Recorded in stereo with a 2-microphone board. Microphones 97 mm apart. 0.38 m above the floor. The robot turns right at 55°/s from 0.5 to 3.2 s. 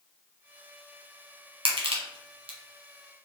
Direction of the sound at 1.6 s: 65° right (ahead or behind).